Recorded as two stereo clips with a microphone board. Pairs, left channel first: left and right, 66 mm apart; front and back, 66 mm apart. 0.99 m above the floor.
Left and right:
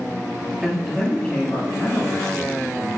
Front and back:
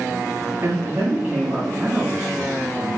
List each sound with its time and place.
0.6 s a man speaking: 165° right, 0.8 m; by 2.9 s 85° left, 1.6 m